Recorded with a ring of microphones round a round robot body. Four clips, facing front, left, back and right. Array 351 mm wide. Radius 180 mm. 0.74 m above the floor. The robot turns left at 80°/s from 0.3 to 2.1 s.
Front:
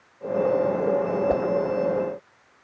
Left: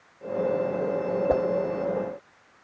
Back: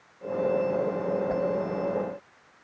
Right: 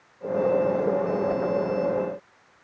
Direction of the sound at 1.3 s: 45° left.